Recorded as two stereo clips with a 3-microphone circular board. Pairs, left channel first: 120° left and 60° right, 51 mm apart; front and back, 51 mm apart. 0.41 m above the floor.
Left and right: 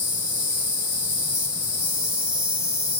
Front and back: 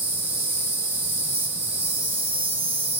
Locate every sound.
0.0 s an insect: 125° right, 1.4 m